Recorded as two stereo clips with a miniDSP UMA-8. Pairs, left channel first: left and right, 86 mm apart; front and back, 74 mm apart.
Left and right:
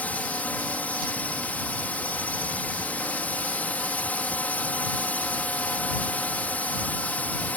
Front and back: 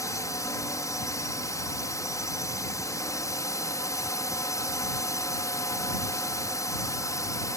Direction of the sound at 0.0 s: 25° left.